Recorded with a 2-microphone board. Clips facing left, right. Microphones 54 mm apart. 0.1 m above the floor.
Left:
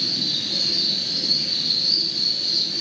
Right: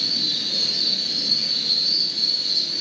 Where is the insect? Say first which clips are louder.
Even; 15° right (ahead or behind), 3 m.